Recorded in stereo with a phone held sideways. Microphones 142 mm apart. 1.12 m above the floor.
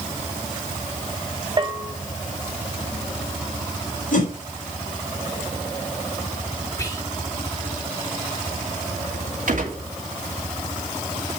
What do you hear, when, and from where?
1.6 s a bell: 35° right (ahead or behind), 1.4 m
4.1 s a whoosh: 70° left (ahead or behind), 4 m
6.8 s whispering: 20° left (ahead or behind), 2.5 m
9.5 s a gunshot: 70° right (ahead or behind), 2.5 m